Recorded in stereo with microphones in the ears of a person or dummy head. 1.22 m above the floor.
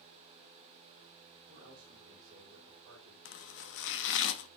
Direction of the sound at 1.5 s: 45° right (ahead or behind).